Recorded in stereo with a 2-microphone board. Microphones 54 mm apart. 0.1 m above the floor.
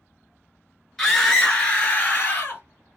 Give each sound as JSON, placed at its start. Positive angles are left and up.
{"t": 1.0, "sound": "a scream", "side_deg": 5, "distance_m": 1.1}